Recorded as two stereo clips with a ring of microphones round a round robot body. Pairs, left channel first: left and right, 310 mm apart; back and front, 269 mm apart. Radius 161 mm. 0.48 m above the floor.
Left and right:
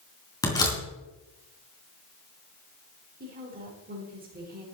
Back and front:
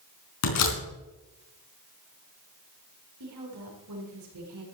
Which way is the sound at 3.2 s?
30° right.